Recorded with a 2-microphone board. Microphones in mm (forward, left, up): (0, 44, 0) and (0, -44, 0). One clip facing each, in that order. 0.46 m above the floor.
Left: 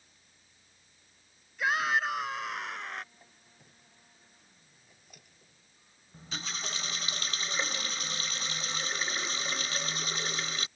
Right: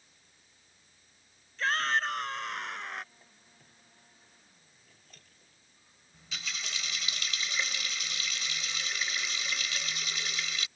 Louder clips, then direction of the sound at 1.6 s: Left 1 dB; 10° left (ahead or behind).